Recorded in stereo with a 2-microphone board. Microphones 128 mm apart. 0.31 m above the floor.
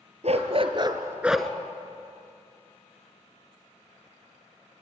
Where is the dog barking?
60° right (ahead or behind), 1.6 m; by 1.5 s 10° left (ahead or behind), 1.0 m.